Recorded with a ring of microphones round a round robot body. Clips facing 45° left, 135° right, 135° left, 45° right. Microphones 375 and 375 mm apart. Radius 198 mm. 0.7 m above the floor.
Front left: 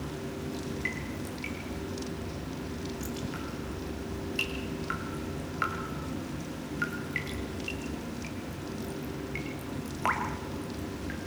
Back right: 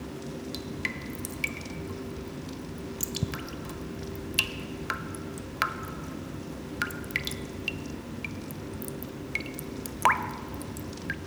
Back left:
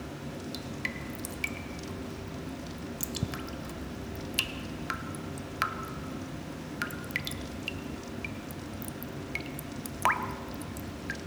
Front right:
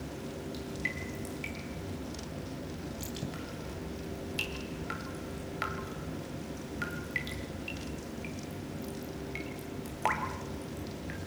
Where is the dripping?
165° right, 1.5 m.